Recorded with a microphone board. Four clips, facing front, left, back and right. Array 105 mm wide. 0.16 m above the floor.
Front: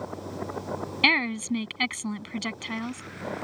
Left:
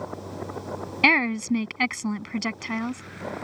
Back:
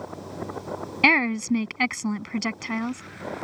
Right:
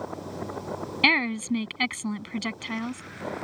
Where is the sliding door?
I don't hear a sliding door.